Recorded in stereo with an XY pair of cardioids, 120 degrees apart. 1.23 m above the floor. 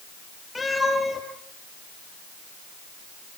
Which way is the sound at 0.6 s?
20° left.